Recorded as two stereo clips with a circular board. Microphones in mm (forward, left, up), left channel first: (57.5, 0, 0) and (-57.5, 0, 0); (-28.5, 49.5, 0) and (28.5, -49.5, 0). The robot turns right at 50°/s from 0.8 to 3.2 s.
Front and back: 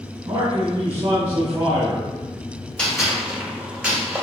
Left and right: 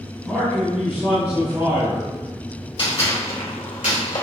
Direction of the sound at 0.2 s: 160° right.